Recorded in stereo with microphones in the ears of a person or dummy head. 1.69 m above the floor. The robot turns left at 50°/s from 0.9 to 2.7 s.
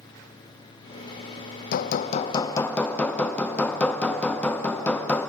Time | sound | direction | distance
1.7 | hammering | 55° left | 0.5 m